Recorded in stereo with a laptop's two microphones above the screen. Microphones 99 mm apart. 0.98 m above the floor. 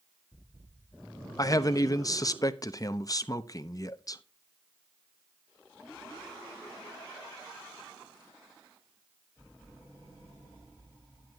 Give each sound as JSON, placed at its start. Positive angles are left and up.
{"t": 1.4, "sound": "a man speaking", "side_deg": 35, "distance_m": 0.6}